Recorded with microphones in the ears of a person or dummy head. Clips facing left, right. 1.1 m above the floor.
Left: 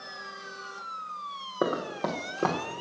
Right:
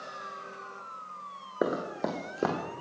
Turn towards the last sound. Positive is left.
turn(degrees=-10)  # may be behind; listen again after turning